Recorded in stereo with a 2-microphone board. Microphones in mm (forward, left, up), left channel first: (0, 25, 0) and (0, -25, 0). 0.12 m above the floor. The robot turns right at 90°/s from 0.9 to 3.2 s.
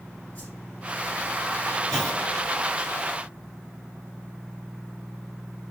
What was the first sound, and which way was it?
A whoosh, 30° left (ahead or behind).